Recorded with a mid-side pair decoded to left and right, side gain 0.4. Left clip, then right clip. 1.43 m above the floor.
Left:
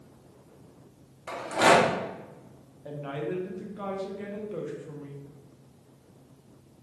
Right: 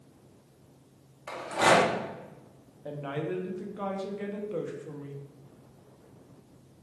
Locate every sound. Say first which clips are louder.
1.3 s a rattle: left 2 dB; 20° left, 0.9 m
2.9 s a woman speaking: even; 25° right, 0.6 m